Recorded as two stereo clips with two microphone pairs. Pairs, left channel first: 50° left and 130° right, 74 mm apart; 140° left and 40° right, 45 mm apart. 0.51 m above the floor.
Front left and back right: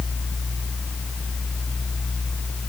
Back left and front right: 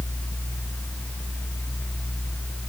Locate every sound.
Only background noise.